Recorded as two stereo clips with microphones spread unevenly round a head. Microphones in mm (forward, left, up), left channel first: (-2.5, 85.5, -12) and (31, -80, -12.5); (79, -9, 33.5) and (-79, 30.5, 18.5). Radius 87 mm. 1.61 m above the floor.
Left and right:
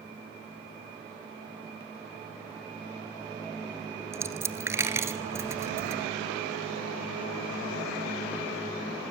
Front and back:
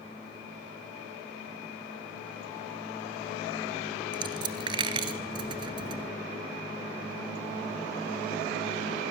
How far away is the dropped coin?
About 1.8 m.